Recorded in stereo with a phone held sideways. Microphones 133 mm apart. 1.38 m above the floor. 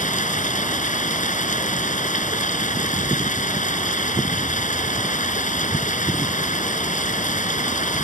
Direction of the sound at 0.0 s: 70° left (ahead or behind).